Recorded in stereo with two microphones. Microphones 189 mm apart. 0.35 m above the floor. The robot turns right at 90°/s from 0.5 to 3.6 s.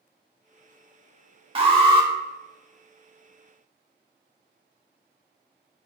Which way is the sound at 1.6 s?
105° right.